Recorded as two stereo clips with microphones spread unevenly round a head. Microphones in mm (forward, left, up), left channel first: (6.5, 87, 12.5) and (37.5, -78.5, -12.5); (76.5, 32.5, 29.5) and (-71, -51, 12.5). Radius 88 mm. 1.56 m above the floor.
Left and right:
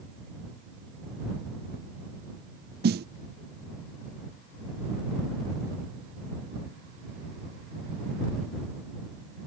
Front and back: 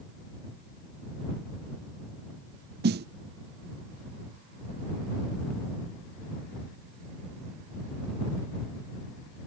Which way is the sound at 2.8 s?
120° right.